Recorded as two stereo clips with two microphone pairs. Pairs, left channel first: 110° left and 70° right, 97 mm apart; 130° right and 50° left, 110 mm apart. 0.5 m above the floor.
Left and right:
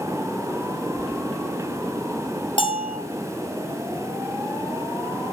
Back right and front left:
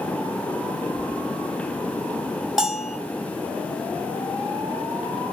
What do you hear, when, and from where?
1.0 s keys jangling: straight ahead, 1.8 m
2.6 s a bell: 135° left, 3.5 m